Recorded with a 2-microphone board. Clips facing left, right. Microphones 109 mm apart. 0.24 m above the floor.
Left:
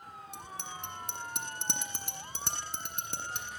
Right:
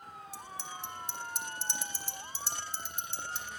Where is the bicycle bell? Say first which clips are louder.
Even; 65° left (ahead or behind), 7.5 m.